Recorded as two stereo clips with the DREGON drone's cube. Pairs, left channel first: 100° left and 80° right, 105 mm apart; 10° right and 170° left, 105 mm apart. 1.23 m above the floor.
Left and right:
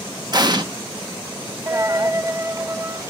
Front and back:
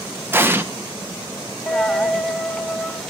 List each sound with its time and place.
0.3 s an explosion: 120° right, 1.2 m
1.7 s a dropped coin: 90° right, 1.0 m